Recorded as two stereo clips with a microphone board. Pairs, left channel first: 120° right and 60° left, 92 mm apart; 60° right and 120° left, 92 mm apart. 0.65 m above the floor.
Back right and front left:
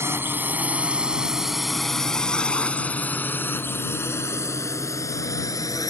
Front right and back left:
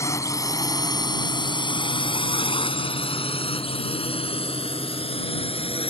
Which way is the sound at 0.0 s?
5° right.